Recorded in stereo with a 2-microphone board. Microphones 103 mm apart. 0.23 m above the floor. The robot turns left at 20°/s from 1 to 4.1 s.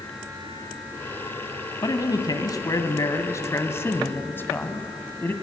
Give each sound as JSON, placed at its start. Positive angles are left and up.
{"t": 1.8, "sound": "a man speaking", "azimuth_deg": 80, "distance_m": 1.4}